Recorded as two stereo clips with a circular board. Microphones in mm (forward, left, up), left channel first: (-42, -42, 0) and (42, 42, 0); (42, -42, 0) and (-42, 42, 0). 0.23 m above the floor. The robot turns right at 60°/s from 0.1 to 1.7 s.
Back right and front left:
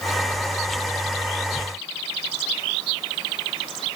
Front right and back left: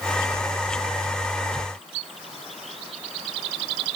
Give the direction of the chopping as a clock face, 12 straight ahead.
No chopping in this recording.